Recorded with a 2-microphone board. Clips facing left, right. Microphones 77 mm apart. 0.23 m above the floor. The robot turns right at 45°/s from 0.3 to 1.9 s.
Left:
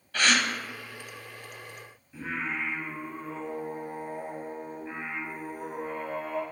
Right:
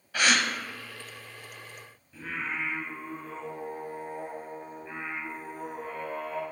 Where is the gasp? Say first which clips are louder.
Even; 10° right (ahead or behind), 0.7 m.